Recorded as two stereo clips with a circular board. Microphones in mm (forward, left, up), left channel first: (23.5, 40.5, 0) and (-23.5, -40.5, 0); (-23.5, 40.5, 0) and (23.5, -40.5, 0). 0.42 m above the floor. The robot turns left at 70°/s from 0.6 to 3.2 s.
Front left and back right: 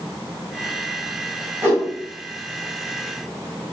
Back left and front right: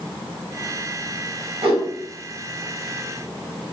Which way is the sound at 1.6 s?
55° right.